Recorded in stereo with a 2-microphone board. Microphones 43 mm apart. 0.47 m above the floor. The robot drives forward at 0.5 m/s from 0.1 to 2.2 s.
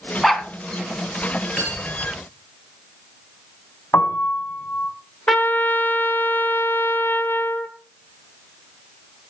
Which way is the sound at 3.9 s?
75° left (ahead or behind).